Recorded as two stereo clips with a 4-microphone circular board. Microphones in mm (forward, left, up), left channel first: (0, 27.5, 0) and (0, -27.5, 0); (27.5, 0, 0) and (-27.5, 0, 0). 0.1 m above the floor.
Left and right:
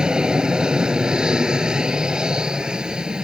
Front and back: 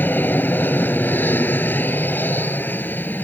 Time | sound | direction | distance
0.0 | an aircraft | 20° right | ?